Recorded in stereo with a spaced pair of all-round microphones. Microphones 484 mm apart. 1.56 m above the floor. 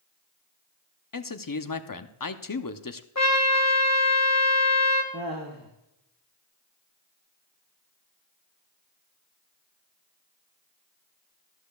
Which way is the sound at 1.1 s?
45° left (ahead or behind).